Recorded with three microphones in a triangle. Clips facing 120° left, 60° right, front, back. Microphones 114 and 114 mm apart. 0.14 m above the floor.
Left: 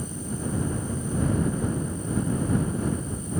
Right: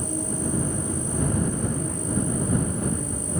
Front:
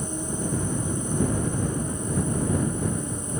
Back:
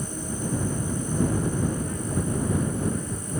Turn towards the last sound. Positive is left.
turn(degrees=-70)